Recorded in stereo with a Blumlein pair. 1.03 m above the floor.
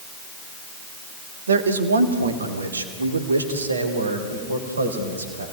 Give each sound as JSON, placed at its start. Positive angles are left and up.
{"t": 1.5, "sound": "a man speaking", "azimuth_deg": -70, "distance_m": 1.5}